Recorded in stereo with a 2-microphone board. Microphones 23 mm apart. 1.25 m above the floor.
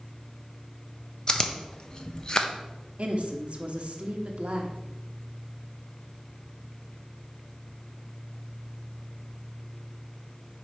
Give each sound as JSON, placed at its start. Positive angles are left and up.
{"t": 1.3, "sound": "chewing", "side_deg": 35, "distance_m": 0.6}
{"t": 3.0, "sound": "a woman speaking", "side_deg": -55, "distance_m": 1.0}